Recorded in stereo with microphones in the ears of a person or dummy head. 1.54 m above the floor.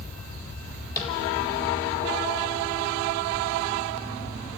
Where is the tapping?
15° left (ahead or behind), 4 m.